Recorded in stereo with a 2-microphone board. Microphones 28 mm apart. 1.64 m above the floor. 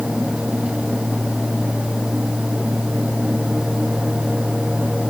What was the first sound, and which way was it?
Only background noise.